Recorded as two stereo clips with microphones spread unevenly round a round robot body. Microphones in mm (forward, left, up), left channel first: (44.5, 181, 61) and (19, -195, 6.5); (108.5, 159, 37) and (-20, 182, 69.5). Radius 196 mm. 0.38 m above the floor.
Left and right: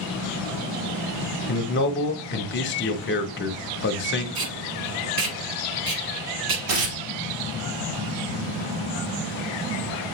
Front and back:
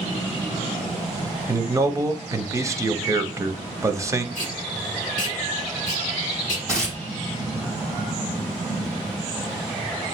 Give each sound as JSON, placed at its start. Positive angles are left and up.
{"t": 1.5, "sound": "a man speaking", "azimuth_deg": 105, "distance_m": 0.8}
{"t": 4.3, "sound": "tape being pulled", "azimuth_deg": -65, "distance_m": 1.1}
{"t": 6.7, "sound": "tearing paper", "azimuth_deg": -65, "distance_m": 1.7}